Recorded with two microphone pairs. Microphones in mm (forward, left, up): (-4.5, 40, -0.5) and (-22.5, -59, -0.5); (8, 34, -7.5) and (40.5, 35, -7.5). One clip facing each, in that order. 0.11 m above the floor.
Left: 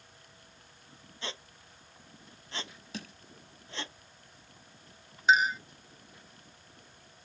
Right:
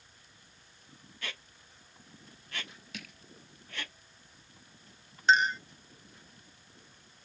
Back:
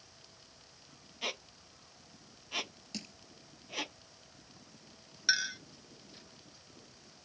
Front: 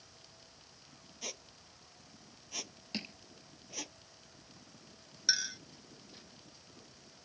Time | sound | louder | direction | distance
1.2 | a squeak | left 3 dB, back 8 dB | 140° left | ?
2.9 | crushing | left 5 dB, front 4 dB | 35° left | ?
5.3 | a clink | even, back 4 dB | 160° left | ?